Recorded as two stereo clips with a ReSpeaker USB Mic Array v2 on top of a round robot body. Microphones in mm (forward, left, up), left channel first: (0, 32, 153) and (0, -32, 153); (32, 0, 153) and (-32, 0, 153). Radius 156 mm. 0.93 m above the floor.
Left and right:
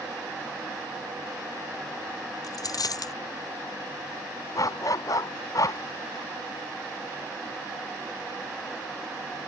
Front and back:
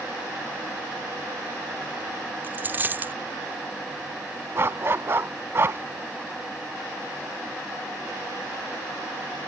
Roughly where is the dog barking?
Behind left.